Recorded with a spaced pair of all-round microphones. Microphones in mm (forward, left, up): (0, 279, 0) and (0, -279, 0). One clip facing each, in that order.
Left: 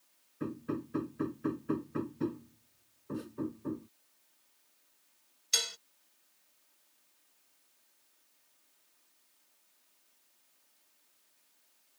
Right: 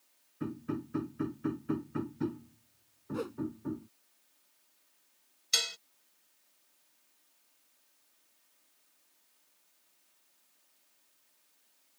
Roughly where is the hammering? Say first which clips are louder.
Even; centre.